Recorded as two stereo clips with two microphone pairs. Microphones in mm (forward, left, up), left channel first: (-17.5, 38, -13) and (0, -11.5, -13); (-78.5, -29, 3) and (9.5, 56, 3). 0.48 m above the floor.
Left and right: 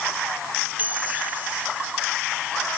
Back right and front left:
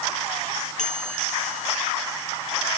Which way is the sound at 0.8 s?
130° right.